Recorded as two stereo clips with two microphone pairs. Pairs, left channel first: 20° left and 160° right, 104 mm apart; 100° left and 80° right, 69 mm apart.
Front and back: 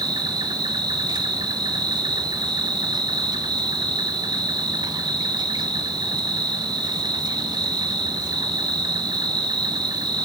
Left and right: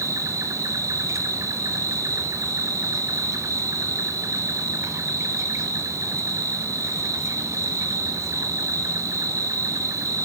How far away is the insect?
About 0.7 m.